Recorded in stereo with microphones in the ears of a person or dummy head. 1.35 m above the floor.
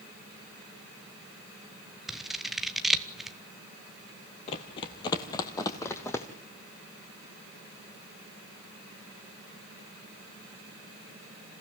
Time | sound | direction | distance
2.1 | scissors | centre (ahead or behind) | 1.0 m
4.5 | running footsteps | 30° left (ahead or behind) | 1.5 m